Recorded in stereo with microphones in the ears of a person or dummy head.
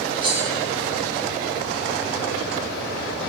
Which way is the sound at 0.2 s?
30° right (ahead or behind).